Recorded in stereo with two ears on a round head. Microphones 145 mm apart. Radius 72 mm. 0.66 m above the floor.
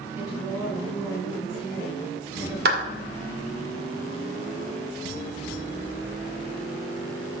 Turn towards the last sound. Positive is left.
turn(degrees=-70)  # may be behind; listen again after turning